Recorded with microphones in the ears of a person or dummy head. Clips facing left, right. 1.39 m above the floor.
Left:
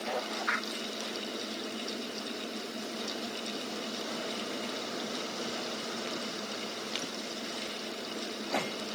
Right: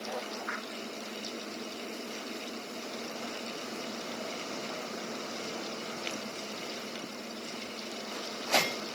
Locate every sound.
Only background noise.